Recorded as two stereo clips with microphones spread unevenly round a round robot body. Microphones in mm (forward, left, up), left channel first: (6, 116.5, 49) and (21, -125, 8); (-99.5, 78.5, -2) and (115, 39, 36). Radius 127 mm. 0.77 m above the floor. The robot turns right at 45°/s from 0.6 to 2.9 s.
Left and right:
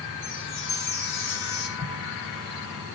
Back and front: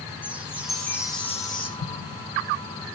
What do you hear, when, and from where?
0.2 s a chime: 75° left, 7.5 m; by 1.7 s 120° left, 7.5 m
1.8 s an explosion: 170° left, 3 m; by 2.2 s 170° right, 3 m